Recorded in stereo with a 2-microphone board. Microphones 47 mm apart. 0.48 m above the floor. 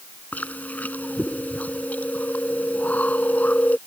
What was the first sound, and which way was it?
Chewing, 35° left (ahead or behind).